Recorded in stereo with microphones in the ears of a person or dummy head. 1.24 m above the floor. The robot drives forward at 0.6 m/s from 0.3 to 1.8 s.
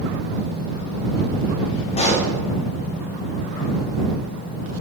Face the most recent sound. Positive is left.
turn(degrees=30)  # may be behind; listen again after turning